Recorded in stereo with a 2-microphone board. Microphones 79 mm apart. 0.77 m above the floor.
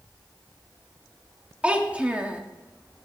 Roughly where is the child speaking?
Centre.